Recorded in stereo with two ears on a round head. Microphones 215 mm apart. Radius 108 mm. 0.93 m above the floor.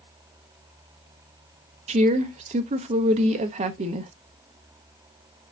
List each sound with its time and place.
1.9 s a woman speaking: 30° right (ahead or behind), 0.6 m